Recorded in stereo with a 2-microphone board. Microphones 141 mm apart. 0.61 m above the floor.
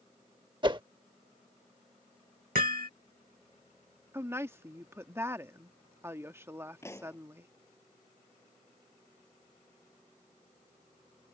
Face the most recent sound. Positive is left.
turn(degrees=20)  # may be behind; listen again after turning